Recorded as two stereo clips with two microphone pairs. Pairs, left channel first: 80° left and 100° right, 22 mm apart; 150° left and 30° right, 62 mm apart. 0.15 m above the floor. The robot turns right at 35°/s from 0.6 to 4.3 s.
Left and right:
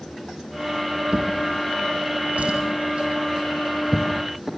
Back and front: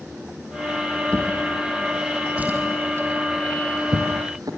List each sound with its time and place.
1.1 s a drawer: 140° right, 4 m; by 4.5 s 30° right, 4 m